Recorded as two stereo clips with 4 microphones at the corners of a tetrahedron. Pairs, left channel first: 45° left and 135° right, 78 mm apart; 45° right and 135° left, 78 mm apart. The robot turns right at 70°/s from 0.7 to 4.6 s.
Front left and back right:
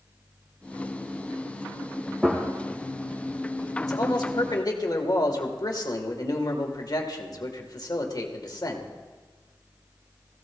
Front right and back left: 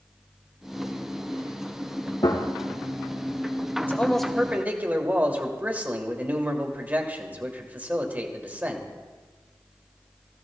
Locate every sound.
2.2 s a gunshot: 50° right, 2 m; by 2.5 s 30° right, 2 m
3.8 s a man speaking: 15° left, 1.8 m; by 8.9 s 70° left, 1.8 m